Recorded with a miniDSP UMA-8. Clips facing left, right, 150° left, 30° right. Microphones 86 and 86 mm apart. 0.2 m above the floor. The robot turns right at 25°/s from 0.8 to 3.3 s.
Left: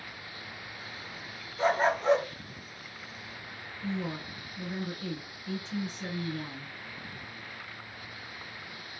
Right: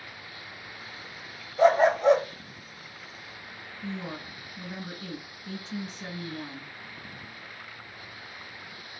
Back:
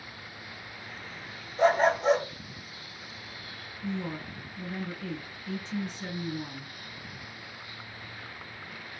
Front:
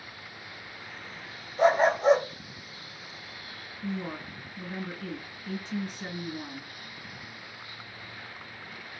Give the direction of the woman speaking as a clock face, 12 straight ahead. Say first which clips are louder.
Left 2 dB, even; 2 o'clock.